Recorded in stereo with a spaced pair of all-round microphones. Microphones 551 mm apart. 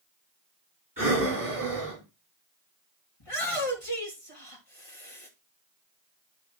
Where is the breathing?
35° right (ahead or behind), 6 m.